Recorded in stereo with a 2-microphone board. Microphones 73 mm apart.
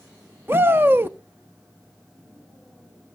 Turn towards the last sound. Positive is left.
turn(degrees=-30)  # may be behind; listen again after turning